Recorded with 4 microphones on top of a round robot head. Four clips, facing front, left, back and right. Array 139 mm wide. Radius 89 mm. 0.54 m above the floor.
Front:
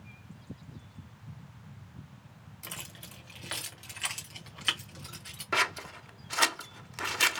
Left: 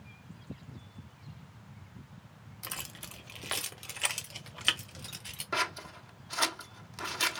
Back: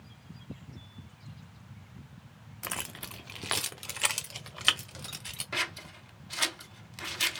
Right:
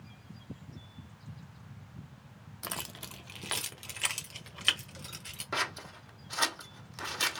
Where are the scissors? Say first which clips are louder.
Left 2 dB, front 7 dB; straight ahead, 0.7 m.